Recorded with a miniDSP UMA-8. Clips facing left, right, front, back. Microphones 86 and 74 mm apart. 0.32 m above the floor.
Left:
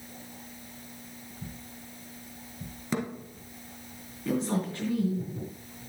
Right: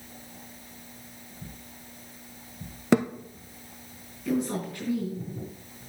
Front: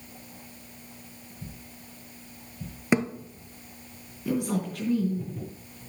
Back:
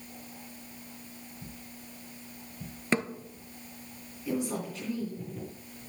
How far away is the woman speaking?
About 3.5 m.